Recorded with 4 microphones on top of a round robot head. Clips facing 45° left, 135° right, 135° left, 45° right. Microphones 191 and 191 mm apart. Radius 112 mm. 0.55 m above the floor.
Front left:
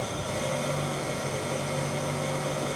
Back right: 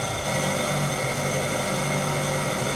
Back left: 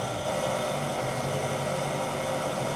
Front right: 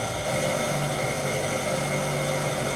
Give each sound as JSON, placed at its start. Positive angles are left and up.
{"t": 0.0, "sound": "an engine running", "azimuth_deg": -120, "distance_m": 2.5}